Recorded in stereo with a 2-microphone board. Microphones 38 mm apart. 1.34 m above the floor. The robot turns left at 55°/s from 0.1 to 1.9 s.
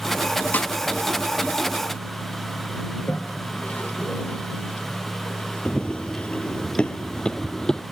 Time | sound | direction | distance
0.5 | a snare drum | 45° left (ahead or behind) | ?
2.9 | a toilet flushing | 50° left (ahead or behind) | ?
5.7 | running footsteps | 25° left (ahead or behind) | ?